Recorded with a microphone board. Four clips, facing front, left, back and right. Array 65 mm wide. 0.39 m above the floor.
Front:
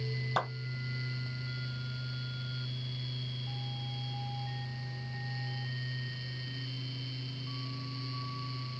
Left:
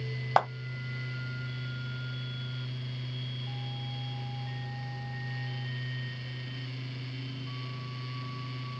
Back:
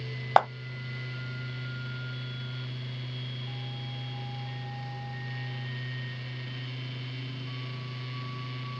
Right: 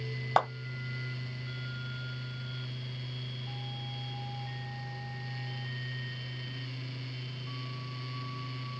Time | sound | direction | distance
0.4 | a clap | 175° left | 1.8 m